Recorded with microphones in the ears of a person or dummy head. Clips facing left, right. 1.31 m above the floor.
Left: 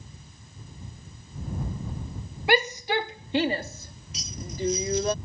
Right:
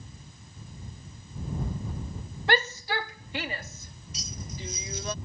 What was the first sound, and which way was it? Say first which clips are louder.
A shout: left 4 dB; 10° left (ahead or behind).